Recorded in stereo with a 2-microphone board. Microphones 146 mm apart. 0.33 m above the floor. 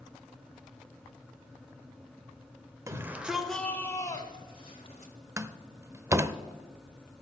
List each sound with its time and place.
2.9 s a shout: 20° right (ahead or behind), 1.2 m; by 5.1 s 50° left (ahead or behind), 1.7 m
5.4 s a door slam: 20° right (ahead or behind), 0.5 m